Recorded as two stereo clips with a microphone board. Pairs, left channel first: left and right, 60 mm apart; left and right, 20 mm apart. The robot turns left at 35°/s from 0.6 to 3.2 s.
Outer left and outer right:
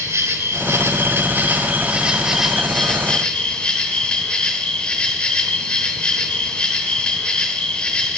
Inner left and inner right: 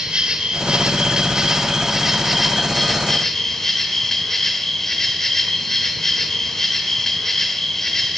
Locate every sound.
0.0 s an insect: 110° right, 1.3 m; by 8.2 s 160° left, 1.3 m